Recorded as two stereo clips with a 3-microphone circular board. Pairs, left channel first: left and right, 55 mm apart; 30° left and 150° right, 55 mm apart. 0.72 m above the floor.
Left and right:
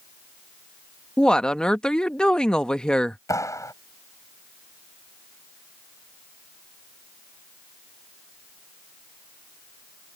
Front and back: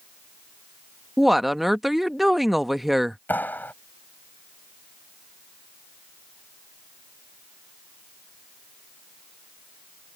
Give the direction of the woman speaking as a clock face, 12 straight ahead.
8 o'clock.